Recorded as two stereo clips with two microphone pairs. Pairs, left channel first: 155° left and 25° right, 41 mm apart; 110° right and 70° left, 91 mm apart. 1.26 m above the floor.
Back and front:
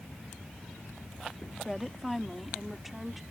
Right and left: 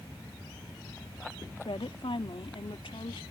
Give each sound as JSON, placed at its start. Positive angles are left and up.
{"t": 1.6, "sound": "a woman speaking", "azimuth_deg": -120}